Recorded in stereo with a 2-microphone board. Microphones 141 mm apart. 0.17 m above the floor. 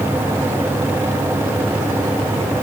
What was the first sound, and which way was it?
Only background noise.